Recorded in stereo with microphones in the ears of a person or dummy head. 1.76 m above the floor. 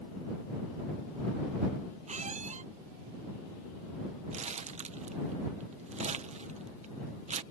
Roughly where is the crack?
I don't hear a crack.